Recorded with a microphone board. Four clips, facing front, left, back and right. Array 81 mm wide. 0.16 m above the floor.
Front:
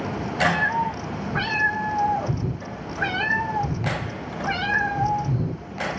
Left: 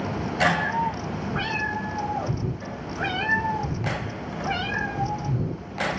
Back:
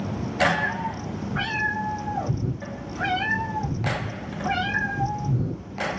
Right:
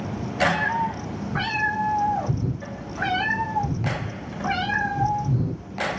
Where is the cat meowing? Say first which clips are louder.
Right 1 dB, front 3 dB; 50° right, 3.5 m.